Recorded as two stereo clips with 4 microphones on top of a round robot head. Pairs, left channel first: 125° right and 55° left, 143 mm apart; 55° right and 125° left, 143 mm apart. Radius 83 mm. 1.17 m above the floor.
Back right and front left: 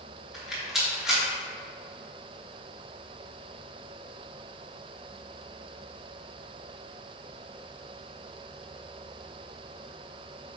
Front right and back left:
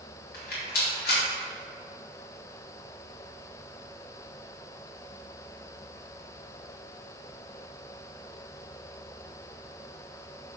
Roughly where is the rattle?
Ahead right.